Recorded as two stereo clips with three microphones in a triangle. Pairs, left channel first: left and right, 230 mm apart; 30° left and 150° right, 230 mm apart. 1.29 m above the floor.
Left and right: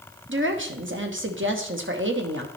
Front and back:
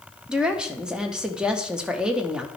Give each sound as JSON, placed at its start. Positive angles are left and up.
{"t": 0.3, "sound": "a woman speaking", "azimuth_deg": -65, "distance_m": 1.0}